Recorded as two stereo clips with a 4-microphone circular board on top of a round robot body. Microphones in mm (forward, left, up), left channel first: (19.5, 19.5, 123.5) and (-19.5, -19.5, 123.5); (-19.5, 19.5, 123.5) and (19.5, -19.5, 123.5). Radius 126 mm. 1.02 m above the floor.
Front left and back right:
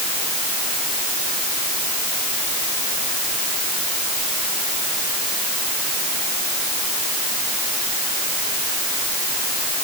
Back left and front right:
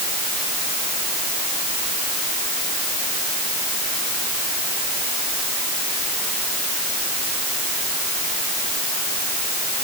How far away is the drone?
I don't hear a drone.